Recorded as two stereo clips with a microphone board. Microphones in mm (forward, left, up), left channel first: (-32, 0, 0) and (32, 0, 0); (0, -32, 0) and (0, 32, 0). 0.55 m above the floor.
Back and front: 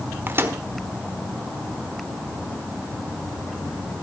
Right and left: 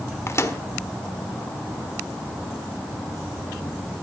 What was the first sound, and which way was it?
A microwave, 50° right.